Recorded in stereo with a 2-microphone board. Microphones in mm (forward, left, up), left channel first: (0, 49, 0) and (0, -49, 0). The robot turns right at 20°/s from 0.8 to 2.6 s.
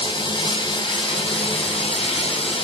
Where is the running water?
60° left, 5.5 m; by 2.6 s 95° left, 5.5 m.